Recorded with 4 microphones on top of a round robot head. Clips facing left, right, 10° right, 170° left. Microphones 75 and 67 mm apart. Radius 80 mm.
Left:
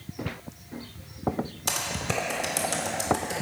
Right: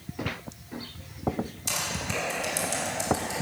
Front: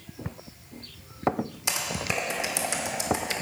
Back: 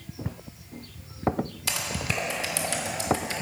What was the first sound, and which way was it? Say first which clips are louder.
Typing on a keyboard: left 2 dB, front 1 dB; 60° left.